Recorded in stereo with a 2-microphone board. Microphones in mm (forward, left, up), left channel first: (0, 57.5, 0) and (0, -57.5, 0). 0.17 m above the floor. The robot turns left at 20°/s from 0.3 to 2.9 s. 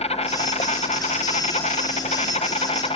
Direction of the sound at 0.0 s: 110° left.